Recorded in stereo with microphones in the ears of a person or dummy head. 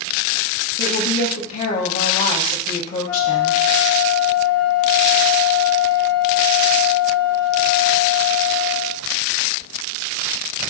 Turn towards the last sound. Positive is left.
turn(degrees=20)  # may be behind; listen again after turning